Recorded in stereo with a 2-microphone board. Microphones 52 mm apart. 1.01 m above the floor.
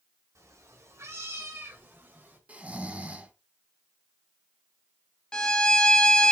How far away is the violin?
About 0.8 m.